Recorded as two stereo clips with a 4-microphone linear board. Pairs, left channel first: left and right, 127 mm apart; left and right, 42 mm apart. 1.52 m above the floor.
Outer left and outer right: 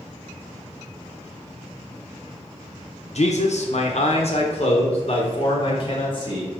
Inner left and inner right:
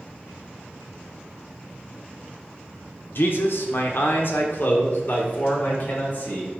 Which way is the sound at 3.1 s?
60° left (ahead or behind).